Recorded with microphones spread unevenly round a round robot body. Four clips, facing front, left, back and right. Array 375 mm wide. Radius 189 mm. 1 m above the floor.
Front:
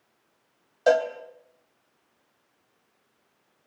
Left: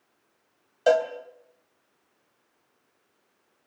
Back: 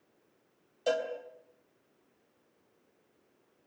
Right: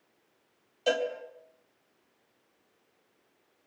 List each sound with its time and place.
0.9 s a cowbell: 45° left, 3.5 m